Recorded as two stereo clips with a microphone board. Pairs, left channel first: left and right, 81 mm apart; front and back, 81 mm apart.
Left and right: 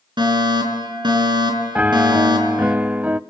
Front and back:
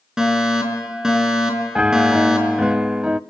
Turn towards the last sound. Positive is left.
turn(degrees=-125)